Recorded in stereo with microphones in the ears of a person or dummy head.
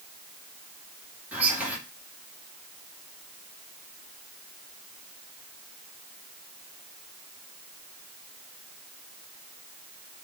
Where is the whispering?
5° right (ahead or behind), 1.2 m.